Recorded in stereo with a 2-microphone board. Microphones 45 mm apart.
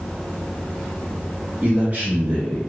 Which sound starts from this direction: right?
A man speaking, at 1.6 s.